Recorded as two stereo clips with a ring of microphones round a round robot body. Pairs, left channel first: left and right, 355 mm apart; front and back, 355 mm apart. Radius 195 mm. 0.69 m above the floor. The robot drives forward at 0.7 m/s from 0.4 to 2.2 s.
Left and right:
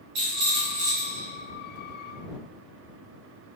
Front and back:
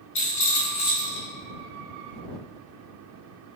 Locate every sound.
0.1 s a rattle: 40° right, 4.5 m; by 1.3 s 45° right, 4 m